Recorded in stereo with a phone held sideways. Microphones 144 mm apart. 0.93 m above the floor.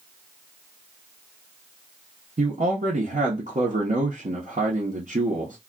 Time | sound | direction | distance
2.4 | a man speaking | 65° right (ahead or behind) | 0.9 m